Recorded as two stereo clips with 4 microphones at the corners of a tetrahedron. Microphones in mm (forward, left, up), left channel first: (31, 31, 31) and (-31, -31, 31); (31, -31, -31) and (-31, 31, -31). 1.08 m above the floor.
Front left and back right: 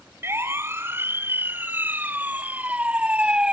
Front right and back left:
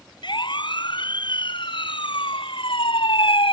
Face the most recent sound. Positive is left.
turn(degrees=-55)